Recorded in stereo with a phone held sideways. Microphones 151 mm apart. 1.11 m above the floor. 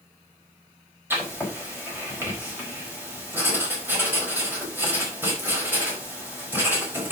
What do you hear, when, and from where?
1.1 s writing: 15° right (ahead or behind), 4.5 m